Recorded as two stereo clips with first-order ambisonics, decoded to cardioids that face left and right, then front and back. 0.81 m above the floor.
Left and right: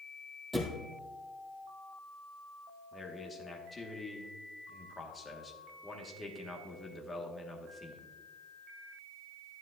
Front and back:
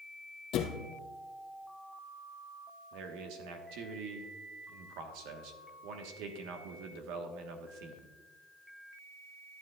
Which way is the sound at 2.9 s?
170° left.